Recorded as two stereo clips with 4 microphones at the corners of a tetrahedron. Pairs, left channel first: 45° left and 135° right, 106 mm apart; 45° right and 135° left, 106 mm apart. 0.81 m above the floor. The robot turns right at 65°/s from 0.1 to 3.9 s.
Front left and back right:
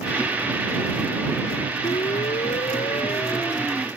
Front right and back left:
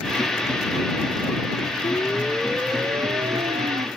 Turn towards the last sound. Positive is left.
turn(degrees=140)